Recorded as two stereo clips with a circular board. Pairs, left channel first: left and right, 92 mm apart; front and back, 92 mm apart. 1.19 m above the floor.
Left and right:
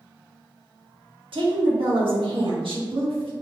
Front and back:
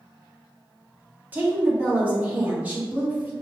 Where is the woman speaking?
110° right, 1.4 m.